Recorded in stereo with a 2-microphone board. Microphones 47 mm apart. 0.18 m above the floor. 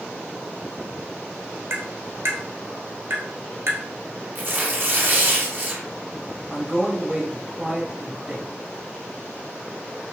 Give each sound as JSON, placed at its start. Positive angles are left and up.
{"t": 1.7, "sound": "tapping", "side_deg": -60, "distance_m": 1.1}
{"t": 4.3, "sound": "tearing paper", "side_deg": -40, "distance_m": 1.0}
{"t": 6.5, "sound": "a man speaking", "side_deg": -15, "distance_m": 1.2}